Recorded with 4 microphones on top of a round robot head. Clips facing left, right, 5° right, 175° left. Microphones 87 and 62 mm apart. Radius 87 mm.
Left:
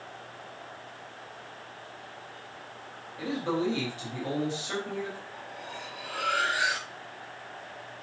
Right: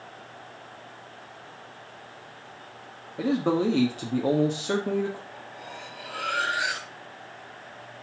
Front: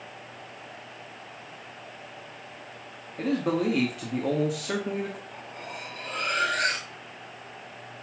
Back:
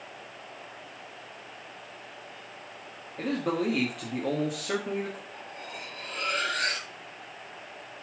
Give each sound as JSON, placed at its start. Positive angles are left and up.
{"t": 3.2, "sound": "a man speaking", "azimuth_deg": -90, "distance_m": 1.6}
{"t": 5.3, "sound": "cutlery clinking", "azimuth_deg": 0, "distance_m": 5.5}